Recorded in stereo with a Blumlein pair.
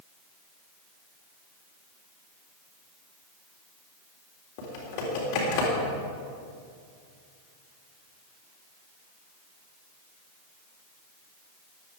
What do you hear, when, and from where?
4.6 s typing on a keyboard: 45° left, 3.5 m